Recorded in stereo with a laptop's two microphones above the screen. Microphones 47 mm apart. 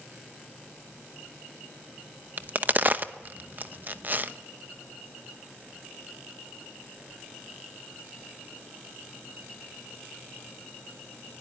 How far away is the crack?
About 0.9 m.